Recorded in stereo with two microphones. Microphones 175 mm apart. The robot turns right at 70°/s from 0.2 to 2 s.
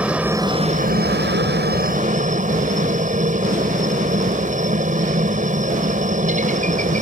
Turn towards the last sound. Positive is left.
turn(degrees=-45)